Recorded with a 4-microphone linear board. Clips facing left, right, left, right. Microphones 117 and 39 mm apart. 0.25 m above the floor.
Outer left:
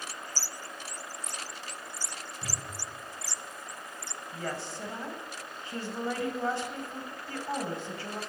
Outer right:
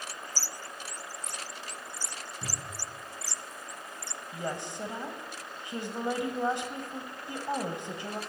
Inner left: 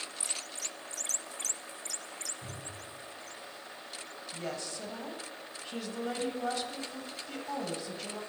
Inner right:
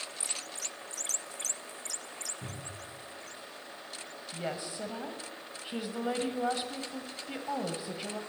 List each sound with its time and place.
2.4 s a cupboard door: 85° right, 6.5 m
4.3 s a woman speaking: 20° right (ahead or behind), 1.2 m